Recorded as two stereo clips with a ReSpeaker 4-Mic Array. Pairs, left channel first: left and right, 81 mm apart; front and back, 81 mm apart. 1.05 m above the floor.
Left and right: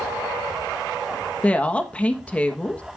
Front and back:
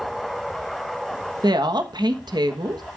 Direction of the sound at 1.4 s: 165° left.